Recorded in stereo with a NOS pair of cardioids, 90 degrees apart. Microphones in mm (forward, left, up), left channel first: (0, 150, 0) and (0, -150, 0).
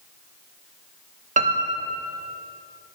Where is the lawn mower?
I don't hear a lawn mower.